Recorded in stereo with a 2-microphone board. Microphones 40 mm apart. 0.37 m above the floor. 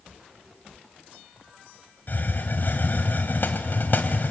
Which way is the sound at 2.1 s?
55° left (ahead or behind).